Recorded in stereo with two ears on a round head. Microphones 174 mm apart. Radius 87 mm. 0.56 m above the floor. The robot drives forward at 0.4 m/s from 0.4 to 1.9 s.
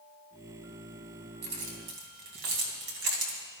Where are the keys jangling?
55° right (ahead or behind), 3 m; by 3.4 s 60° right (ahead or behind), 2.5 m.